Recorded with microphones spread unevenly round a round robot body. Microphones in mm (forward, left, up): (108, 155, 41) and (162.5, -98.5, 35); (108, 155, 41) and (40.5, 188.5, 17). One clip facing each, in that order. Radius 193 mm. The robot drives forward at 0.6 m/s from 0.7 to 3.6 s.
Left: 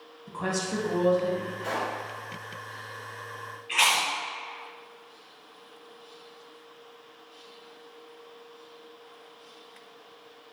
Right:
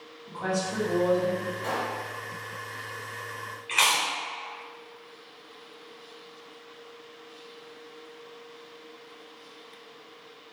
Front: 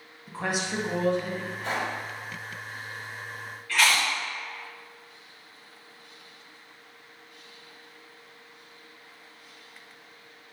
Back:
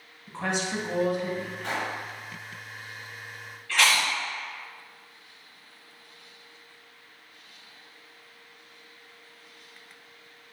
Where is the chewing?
140° right, 0.9 m.